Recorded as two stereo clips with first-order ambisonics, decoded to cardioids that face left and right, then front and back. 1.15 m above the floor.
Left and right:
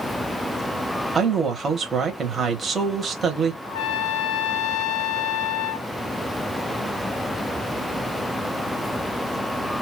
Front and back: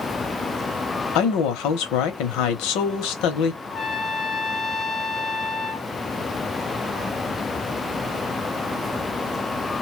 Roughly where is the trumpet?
Left.